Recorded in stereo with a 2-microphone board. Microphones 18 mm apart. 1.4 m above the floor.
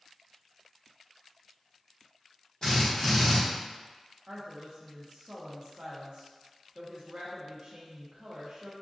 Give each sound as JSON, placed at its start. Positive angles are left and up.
{"t": 2.6, "sound": "a drill", "side_deg": 55, "distance_m": 1.5}
{"t": 4.3, "sound": "a woman speaking", "side_deg": -60, "distance_m": 0.6}